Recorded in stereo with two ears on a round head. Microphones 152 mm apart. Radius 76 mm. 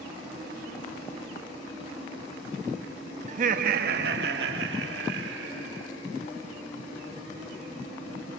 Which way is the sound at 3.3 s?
40° right (ahead or behind).